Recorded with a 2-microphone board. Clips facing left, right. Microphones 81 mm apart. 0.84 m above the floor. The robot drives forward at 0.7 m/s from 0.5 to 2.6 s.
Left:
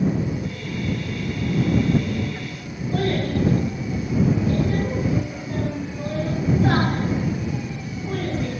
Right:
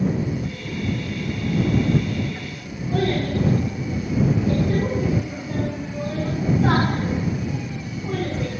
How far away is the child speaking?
About 5.5 m.